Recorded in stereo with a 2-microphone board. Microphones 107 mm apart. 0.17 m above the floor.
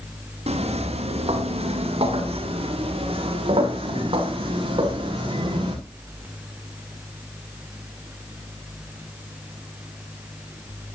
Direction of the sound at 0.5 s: 70° right (ahead or behind).